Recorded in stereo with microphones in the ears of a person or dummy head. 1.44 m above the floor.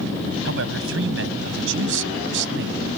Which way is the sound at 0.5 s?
75° right (ahead or behind).